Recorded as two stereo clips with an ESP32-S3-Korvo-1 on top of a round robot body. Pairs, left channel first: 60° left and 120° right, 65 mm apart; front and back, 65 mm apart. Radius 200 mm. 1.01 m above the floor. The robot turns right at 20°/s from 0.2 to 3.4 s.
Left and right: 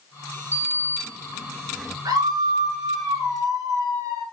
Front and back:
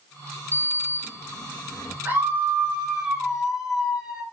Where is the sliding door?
60° right, 1.1 m; by 1.9 s 30° right, 1.1 m.